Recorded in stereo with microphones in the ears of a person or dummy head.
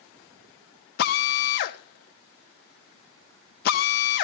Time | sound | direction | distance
1.0 | a drill | 55° left (ahead or behind) | 1.6 m